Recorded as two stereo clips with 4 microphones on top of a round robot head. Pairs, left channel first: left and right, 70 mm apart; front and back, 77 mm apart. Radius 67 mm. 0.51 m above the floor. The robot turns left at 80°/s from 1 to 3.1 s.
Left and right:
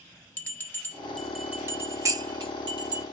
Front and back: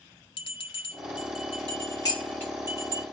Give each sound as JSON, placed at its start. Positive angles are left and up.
{"t": 0.4, "sound": "a bell", "azimuth_deg": 25, "distance_m": 2.5}
{"t": 2.0, "sound": "dishes clattering", "azimuth_deg": -45, "distance_m": 3.0}